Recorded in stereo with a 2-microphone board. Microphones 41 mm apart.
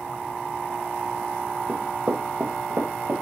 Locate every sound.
1.7 s running footsteps: 40° right (ahead or behind), 2.5 m; by 3.2 s 75° right (ahead or behind), 3 m